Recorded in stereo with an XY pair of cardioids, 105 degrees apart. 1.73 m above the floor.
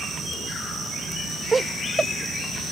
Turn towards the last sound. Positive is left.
turn(degrees=-25)